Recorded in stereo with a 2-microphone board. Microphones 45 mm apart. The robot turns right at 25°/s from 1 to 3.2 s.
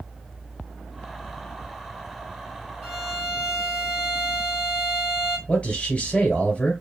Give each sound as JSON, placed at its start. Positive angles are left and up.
{"t": 2.8, "sound": "a violin", "side_deg": 0, "distance_m": 1.4}
{"t": 5.5, "sound": "a man speaking", "side_deg": 30, "distance_m": 1.7}